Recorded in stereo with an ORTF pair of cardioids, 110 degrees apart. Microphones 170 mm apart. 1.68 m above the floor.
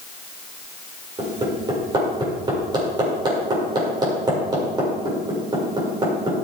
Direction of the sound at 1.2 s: 25° right.